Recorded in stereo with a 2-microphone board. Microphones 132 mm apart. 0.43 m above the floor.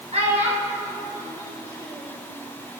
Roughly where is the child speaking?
Right.